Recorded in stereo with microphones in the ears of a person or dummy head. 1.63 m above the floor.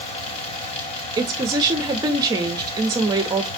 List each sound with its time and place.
0.0 s a fan: 35° left (ahead or behind), 1.4 m
1.2 s a woman speaking: 20° right (ahead or behind), 0.9 m